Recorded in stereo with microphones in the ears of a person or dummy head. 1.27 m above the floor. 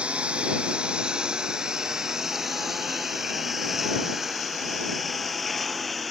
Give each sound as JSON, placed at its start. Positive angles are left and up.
{"t": 0.0, "sound": "a lawn mower", "side_deg": -5}